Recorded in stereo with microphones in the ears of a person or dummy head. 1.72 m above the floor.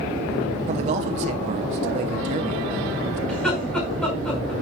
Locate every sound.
0.7 s a man speaking: 35° right (ahead or behind), 0.8 m
3.3 s laughter: 5° left (ahead or behind), 5 m